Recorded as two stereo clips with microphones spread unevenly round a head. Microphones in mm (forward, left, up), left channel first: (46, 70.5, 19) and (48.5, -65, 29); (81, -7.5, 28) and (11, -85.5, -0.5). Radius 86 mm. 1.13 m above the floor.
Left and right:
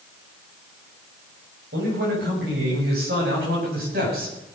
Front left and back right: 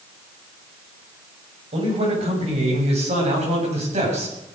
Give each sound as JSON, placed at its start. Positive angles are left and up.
{"t": 1.7, "sound": "a man speaking", "azimuth_deg": -110, "distance_m": 7.0}